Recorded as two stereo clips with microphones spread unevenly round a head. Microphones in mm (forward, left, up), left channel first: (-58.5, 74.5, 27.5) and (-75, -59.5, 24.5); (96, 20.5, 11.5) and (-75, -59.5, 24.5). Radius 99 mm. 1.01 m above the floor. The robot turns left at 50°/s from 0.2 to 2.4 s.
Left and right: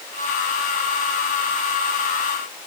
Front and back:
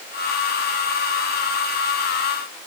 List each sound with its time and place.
Only background noise.